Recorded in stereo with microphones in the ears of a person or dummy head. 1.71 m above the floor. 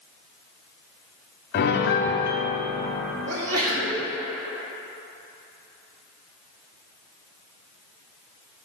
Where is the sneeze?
85° right, 1.7 m.